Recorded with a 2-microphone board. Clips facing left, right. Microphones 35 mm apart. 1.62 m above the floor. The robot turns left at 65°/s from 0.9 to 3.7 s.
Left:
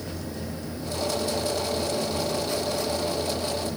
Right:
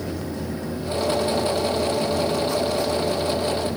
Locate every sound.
Only background noise.